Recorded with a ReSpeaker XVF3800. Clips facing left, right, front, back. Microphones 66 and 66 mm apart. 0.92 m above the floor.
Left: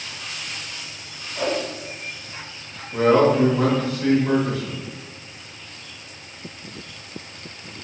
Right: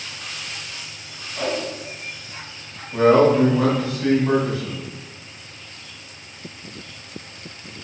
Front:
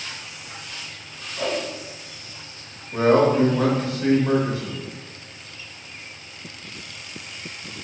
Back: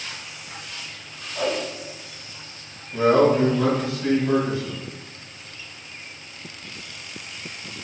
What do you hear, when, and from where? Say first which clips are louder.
1.4 s a whoosh: left 1 dB, back 1 dB; 175° left, 1.4 m
2.9 s a man speaking: right 2 dB, even; 5° right, 1.0 m